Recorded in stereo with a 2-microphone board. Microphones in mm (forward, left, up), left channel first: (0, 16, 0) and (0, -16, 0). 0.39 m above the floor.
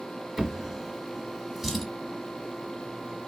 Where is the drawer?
5° right (ahead or behind), 1.2 m.